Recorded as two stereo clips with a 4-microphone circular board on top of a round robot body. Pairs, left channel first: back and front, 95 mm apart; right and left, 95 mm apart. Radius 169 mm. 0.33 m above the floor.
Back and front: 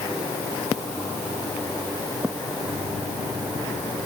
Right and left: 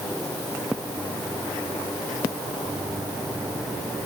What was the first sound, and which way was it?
Only background noise.